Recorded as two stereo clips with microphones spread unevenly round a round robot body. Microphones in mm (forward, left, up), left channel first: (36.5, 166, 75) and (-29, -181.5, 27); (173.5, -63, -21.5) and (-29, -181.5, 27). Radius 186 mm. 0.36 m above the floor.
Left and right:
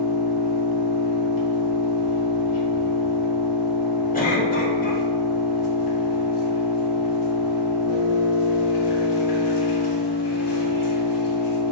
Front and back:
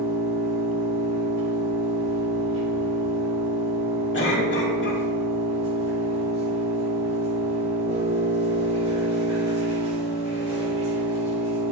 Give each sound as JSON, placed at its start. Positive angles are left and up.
{"t": 0.0, "sound": "an engine running", "azimuth_deg": 110, "distance_m": 2.5}
{"t": 4.1, "sound": "a cough", "azimuth_deg": 10, "distance_m": 2.5}